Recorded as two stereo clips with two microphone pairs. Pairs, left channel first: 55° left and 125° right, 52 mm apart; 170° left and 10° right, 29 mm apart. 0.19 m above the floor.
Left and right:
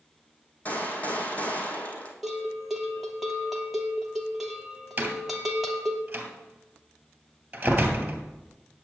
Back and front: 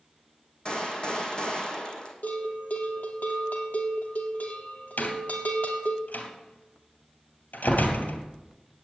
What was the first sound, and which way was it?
A gunshot, 115° left.